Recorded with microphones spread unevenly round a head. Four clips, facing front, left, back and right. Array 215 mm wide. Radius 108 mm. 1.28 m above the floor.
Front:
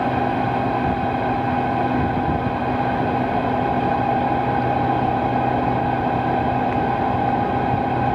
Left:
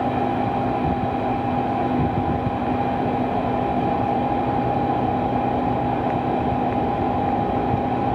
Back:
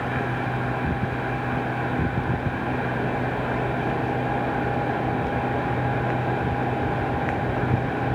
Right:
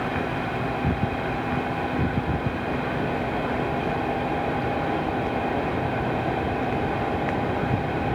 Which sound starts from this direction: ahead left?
A fan, at 0.0 s.